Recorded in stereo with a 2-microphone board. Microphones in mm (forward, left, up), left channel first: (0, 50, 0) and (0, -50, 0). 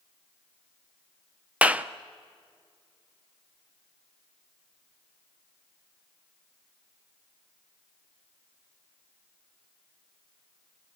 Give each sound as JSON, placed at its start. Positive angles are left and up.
{"t": 1.6, "sound": "a clap", "side_deg": -15, "distance_m": 0.6}